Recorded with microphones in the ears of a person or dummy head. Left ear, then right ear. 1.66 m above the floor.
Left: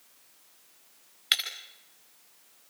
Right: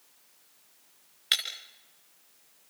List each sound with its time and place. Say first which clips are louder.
1.3 s breaking glass: left 1 dB; 5° left (ahead or behind), 2.5 m